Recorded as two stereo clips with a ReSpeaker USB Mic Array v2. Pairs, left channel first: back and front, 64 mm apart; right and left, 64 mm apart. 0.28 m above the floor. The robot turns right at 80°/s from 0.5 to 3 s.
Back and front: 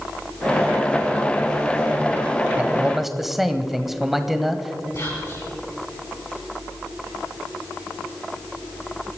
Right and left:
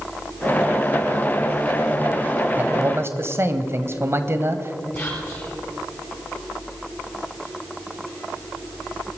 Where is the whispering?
155° right, 5 m.